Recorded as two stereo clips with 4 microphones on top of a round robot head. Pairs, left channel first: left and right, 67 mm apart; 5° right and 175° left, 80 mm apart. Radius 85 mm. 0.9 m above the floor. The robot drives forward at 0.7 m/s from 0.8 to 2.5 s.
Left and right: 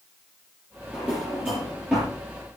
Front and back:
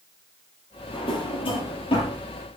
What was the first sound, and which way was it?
A drawer, 10° right.